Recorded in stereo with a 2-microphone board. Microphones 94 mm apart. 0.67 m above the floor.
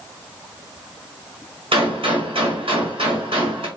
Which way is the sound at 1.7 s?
75° right (ahead or behind).